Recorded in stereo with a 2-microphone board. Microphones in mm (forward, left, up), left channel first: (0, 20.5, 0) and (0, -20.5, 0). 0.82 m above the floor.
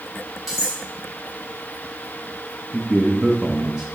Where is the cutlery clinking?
10° right (ahead or behind), 3.5 m.